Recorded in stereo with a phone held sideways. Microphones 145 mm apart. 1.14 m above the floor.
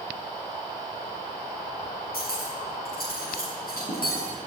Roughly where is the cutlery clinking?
Left.